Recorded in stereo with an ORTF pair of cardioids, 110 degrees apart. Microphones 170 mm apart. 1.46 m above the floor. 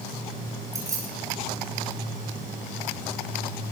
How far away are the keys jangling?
About 7.5 m.